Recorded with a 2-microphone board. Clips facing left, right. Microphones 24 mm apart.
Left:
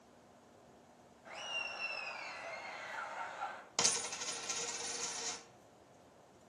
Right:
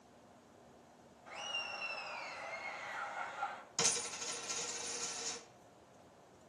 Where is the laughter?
40° left (ahead or behind), 1.5 m; by 3.6 s 25° right (ahead or behind), 1.2 m.